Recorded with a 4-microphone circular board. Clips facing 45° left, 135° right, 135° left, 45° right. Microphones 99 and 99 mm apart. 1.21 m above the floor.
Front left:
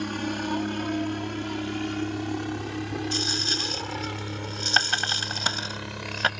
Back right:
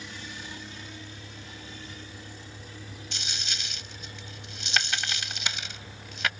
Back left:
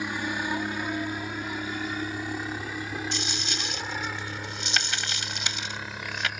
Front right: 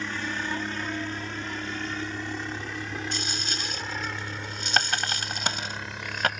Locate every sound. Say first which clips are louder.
0.0 s a helicopter: front left 14 dB, back left 2 dB; 60° left; by 6.4 s 45° left
3.1 s a dropped coin: front left 11 dB, even; 5° right